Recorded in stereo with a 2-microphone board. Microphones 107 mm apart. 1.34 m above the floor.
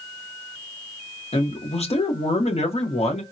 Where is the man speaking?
80° left, 0.9 m.